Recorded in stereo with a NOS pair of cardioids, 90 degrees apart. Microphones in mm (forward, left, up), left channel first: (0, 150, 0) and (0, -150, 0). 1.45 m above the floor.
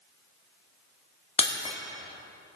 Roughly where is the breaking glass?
Ahead.